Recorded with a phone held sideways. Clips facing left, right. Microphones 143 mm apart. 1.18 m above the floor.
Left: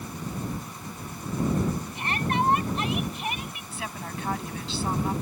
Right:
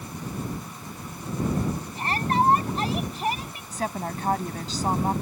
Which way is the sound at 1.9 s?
35° right (ahead or behind).